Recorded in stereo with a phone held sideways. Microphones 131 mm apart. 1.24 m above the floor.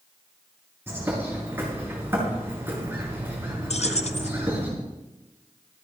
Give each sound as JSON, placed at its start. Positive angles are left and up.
{"t": 0.9, "sound": "a bird", "side_deg": -15, "distance_m": 6.0}
{"t": 3.7, "sound": "keys jangling", "side_deg": 55, "distance_m": 0.8}